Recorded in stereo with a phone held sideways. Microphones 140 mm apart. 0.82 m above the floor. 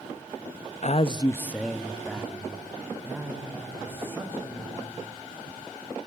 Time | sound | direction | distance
0.8 | a man speaking | 55° left (ahead or behind) | 0.5 m